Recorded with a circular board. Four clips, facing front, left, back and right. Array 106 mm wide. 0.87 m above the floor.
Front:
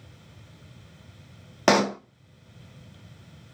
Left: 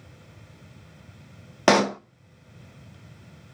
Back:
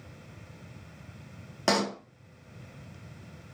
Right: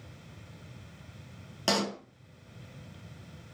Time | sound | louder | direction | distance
1.7 | a pop | left 11 dB, front 7 dB | 60° left | 0.6 m